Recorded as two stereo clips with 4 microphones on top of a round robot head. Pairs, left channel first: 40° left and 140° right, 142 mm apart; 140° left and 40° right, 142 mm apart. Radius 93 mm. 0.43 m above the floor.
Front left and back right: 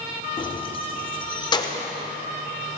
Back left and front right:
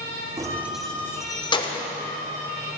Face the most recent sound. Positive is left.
turn(degrees=100)